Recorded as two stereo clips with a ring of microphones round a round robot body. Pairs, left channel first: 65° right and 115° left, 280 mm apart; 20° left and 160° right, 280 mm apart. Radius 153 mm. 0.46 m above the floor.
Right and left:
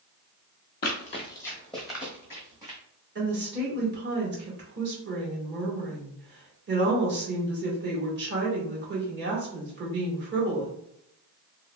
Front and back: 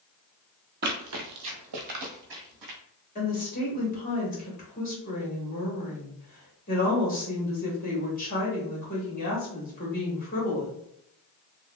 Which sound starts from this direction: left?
A woman speaking, at 3.1 s.